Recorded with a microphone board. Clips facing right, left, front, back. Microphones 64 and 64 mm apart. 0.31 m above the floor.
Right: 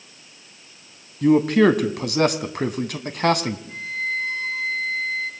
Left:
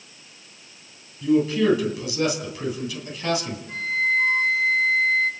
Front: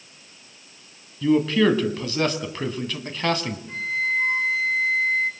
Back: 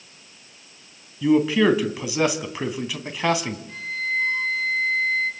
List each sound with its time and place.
1.2 s a man speaking: 105° right, 2.5 m
3.7 s a flute: 50° left, 4.5 m